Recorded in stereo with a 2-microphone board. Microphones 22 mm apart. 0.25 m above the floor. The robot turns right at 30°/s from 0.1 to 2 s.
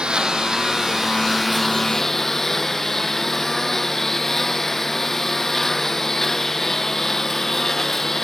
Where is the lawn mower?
40° right; by 8.3 s 15° left.